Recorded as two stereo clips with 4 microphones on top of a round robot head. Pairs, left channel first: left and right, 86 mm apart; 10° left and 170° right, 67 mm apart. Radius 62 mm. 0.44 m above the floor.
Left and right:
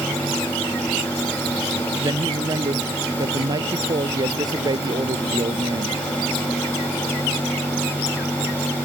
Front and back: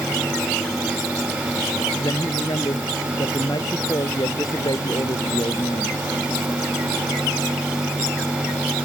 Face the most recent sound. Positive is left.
turn(degrees=-45)